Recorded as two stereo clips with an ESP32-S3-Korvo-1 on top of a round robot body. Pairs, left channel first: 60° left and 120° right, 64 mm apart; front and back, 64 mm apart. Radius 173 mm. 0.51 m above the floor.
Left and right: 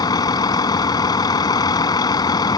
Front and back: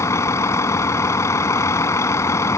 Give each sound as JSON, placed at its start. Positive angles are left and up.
{"t": 0.0, "sound": "a vehicle", "azimuth_deg": 45}